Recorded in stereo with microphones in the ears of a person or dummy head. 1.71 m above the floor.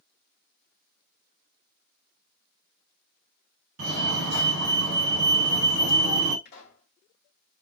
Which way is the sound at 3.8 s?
75° right (ahead or behind).